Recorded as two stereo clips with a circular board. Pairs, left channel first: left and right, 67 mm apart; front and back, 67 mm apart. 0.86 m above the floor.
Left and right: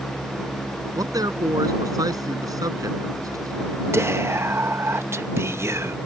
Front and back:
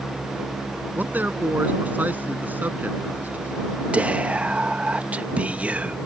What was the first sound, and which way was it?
A man speaking, 115° right.